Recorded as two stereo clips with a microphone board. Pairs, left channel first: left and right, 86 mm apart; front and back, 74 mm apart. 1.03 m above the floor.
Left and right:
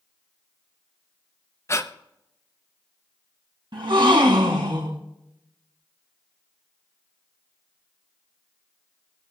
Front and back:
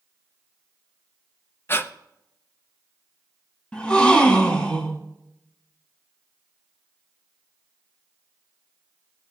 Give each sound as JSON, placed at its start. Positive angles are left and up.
{"t": 1.7, "sound": "breathing", "azimuth_deg": 45, "distance_m": 0.6}
{"t": 3.7, "sound": "a gasp", "azimuth_deg": -75, "distance_m": 2.5}